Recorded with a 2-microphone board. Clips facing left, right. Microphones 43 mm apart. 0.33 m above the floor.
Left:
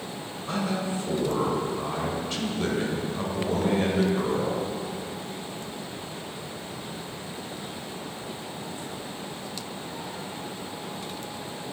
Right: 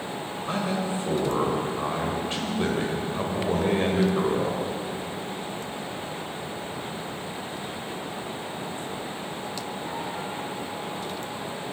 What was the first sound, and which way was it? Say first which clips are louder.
A man speaking: right 1 dB; 25° right (ahead or behind).